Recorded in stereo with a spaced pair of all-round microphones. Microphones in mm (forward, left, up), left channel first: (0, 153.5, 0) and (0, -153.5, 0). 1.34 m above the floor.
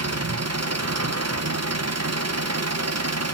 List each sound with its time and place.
0.0 s an engine running: 55° right (ahead or behind), 0.8 m